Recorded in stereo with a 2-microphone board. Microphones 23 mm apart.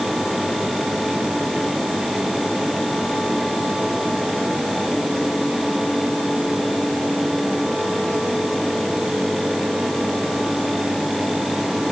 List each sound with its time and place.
Only background noise.